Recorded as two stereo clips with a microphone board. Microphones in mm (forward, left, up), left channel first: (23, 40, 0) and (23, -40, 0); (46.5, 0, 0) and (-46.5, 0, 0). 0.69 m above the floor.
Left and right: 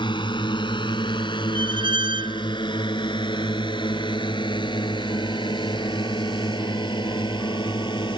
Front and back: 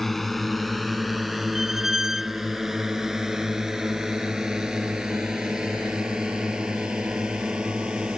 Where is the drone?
90° left; by 8.2 s 100° left.